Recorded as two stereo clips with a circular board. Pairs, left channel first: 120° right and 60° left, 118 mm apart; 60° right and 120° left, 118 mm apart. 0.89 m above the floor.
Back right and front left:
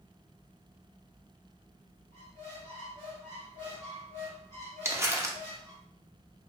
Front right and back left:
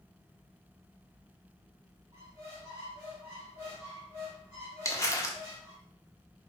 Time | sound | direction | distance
2.1 | a squeak | 50° left | 1.8 m
4.8 | crumpling | straight ahead | 0.5 m